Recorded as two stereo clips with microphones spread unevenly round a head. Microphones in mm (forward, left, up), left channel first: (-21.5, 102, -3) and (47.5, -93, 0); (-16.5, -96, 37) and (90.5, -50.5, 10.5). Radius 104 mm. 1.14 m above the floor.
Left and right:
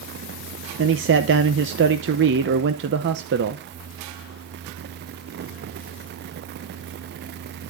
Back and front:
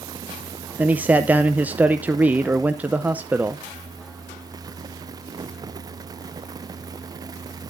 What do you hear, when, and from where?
0.8 s a man speaking: 45° right, 0.7 m